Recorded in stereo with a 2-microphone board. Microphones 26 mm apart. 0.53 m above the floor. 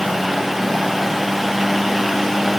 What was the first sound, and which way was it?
Only background noise.